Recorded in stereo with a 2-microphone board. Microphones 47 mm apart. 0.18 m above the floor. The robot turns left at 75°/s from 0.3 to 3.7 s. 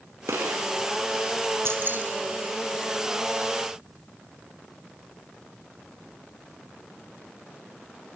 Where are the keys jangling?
60° right (ahead or behind), 2.5 m; by 2.0 s 35° right (ahead or behind), 2.5 m.